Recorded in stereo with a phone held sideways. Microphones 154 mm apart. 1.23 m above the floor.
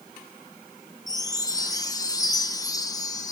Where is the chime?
25° left (ahead or behind), 1.2 m.